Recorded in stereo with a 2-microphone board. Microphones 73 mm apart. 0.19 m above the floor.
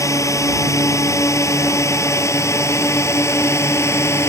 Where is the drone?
45° left (ahead or behind); by 4.3 s 35° left (ahead or behind).